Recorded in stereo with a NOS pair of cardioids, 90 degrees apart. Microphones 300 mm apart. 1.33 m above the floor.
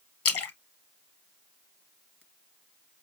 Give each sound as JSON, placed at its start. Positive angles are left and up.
{"t": 0.2, "sound": "a splash", "azimuth_deg": 50, "distance_m": 1.1}